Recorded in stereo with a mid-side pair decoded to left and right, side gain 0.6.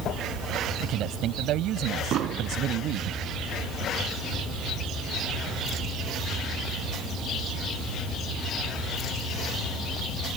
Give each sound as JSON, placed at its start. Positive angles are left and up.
{"t": 0.8, "sound": "a man speaking", "azimuth_deg": -60}
{"t": 2.1, "sound": "an explosion", "azimuth_deg": -55}